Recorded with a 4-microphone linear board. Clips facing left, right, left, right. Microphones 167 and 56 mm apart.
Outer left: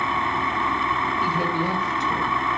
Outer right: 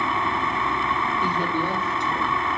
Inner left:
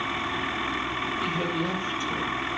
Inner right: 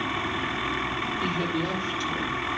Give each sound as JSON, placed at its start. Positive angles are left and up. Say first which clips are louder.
{"t": 1.2, "sound": "a woman speaking", "louder": "outer left 2 dB, inner right 1 dB", "side_deg": 5, "distance_m": 4.5}